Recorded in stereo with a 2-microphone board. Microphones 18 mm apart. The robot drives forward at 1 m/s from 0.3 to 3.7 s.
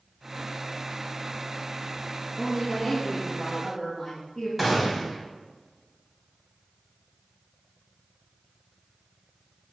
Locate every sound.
2.4 s a woman speaking: centre (ahead or behind), 6 m
4.6 s a gunshot: 10° right (ahead or behind), 3.5 m